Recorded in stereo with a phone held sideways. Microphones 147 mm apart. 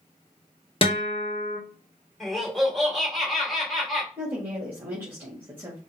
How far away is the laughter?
About 2.5 m.